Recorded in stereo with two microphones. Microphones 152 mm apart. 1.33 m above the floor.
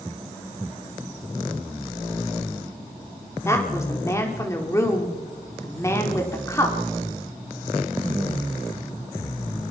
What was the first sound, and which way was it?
A woman speaking, 20° left (ahead or behind).